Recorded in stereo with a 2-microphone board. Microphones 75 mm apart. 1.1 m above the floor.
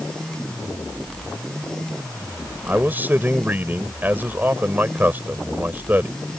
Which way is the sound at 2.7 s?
25° right (ahead or behind).